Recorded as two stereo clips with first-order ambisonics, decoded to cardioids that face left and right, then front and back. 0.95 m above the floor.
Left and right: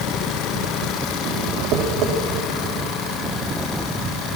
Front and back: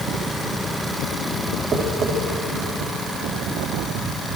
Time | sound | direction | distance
1.7 | tapping | 120° right | 2.5 m